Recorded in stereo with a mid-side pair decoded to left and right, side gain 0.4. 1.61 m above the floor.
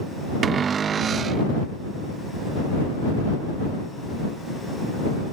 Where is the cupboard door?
55° right.